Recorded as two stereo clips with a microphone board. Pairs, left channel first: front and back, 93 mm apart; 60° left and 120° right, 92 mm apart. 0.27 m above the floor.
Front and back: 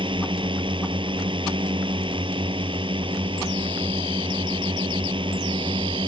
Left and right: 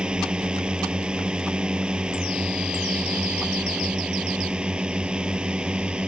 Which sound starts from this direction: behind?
A drone, at 0.0 s.